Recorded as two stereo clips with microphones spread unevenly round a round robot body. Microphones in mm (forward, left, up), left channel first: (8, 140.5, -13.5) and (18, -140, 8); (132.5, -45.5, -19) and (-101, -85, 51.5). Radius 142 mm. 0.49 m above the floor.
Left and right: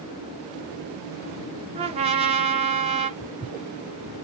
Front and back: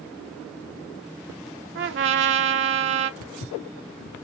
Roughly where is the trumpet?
Behind right.